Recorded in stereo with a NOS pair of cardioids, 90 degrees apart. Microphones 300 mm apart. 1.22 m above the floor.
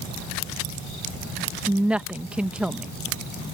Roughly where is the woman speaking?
Ahead.